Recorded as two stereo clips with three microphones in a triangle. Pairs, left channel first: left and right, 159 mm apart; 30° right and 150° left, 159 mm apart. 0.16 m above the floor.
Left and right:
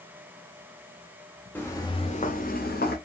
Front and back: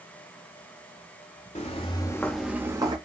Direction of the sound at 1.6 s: 10° left.